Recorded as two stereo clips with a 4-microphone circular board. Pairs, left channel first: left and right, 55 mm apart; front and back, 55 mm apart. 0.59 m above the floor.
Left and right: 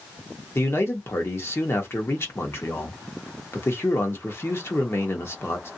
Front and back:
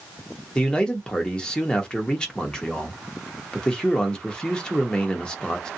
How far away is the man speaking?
About 1.0 m.